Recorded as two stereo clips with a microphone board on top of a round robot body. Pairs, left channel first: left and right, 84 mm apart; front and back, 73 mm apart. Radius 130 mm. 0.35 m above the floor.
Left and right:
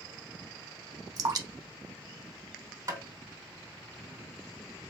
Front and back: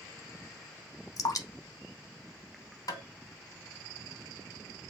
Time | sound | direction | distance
1.2 | dripping | 40° right | 0.7 m
2.9 | tapping | 35° right | 3 m